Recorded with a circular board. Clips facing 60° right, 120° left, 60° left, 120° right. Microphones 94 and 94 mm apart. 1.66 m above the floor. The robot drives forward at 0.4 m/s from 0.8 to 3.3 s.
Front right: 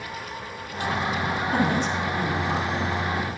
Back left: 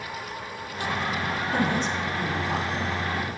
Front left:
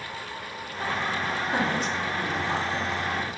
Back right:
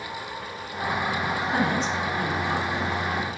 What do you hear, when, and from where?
1.5 s a woman speaking: 25° right, 3.5 m; by 3.0 s 30° right, 3 m